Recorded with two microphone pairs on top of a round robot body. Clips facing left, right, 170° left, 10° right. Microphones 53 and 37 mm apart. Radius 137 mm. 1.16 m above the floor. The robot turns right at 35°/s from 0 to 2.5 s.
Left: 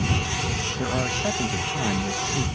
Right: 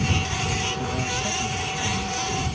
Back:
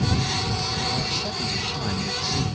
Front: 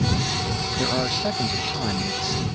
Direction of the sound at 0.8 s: 35° left.